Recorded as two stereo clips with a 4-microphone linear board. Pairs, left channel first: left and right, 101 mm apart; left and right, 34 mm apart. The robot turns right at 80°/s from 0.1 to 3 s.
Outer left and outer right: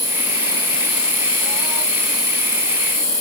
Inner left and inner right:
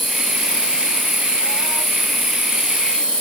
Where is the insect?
95° left, 1.1 m; by 3.2 s 30° right, 1.1 m.